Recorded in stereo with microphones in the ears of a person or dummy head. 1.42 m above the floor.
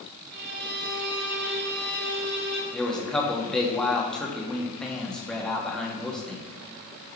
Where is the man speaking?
5° left (ahead or behind), 2 m.